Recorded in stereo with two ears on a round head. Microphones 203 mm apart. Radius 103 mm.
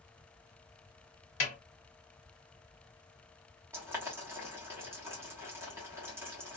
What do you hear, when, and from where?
1.4 s a snare drum: 30° left (ahead or behind), 1.2 m
3.7 s boiling: 10° right (ahead or behind), 1.1 m